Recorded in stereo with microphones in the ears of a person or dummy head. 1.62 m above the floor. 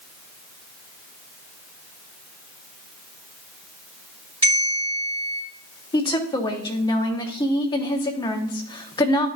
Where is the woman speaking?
20° left (ahead or behind), 1.1 m.